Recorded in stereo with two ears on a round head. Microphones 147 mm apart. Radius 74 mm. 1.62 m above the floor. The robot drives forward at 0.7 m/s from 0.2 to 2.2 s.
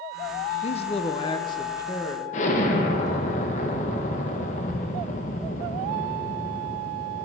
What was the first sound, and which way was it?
A man speaking, 40° left (ahead or behind).